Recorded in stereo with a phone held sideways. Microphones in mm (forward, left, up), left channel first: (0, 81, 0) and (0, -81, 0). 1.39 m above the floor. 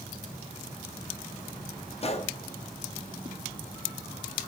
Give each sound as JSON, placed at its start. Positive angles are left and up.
{"t": 2.0, "sound": "a gunshot", "side_deg": 40, "distance_m": 1.1}